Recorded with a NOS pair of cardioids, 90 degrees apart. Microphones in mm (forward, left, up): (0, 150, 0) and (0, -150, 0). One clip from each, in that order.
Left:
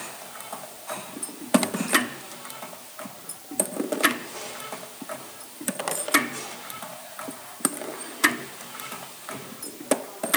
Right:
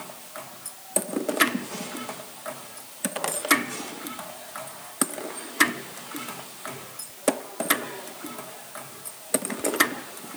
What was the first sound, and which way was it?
Only background noise.